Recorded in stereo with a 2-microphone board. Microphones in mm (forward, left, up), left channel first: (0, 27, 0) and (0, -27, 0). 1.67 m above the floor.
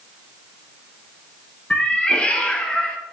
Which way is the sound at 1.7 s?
20° left (ahead or behind).